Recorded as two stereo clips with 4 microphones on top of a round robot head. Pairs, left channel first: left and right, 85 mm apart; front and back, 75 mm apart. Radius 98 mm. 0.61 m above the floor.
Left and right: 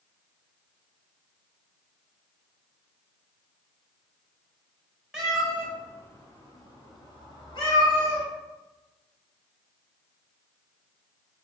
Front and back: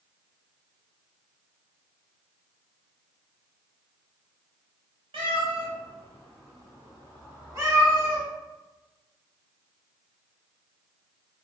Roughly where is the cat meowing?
Behind.